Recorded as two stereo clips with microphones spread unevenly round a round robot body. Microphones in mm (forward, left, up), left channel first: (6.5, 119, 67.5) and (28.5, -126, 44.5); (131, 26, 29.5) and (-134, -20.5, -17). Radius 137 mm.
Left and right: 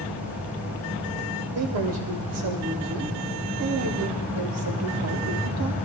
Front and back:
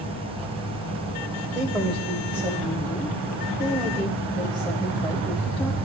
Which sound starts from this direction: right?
A man speaking, at 1.6 s.